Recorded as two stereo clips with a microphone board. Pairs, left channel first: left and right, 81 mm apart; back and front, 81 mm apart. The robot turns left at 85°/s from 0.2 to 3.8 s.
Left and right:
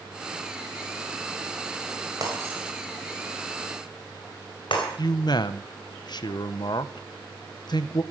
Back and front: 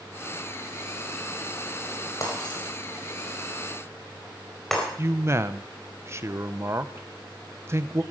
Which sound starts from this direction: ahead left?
A man speaking, at 5.0 s.